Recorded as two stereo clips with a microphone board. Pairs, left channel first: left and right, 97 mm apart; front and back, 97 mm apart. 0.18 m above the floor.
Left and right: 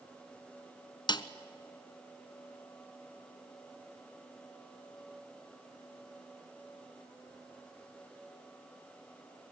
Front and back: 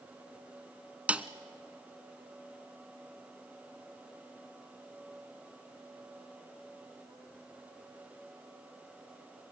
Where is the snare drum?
105° left, 0.7 m.